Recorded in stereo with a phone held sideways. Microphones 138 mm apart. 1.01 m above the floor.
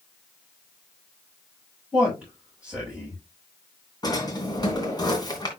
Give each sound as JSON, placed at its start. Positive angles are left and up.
{"t": 1.9, "sound": "a man speaking", "side_deg": -5, "distance_m": 7.0}
{"t": 4.0, "sound": "a drawer", "side_deg": 30, "distance_m": 2.5}